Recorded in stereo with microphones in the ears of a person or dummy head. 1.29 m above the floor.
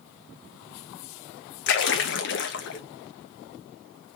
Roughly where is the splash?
Left.